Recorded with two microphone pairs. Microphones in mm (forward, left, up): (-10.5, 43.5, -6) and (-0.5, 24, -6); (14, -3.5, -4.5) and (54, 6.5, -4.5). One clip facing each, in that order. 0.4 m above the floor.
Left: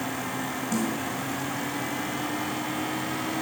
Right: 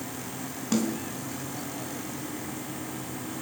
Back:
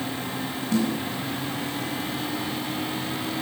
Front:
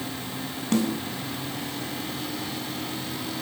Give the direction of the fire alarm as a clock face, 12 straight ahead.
I don't hear a fire alarm.